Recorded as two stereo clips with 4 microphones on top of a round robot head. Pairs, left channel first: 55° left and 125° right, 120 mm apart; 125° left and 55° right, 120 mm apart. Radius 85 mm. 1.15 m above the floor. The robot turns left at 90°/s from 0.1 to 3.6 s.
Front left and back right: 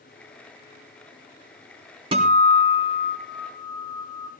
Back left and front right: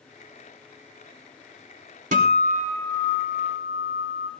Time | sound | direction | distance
2.1 | a guitar | 75° right | 2 m